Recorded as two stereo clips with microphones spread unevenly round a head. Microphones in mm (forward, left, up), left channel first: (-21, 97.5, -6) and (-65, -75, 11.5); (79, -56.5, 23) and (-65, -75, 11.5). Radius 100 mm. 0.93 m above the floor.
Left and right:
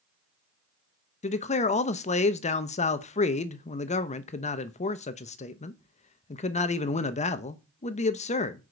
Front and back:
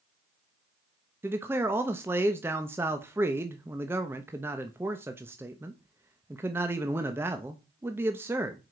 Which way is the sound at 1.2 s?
115° left.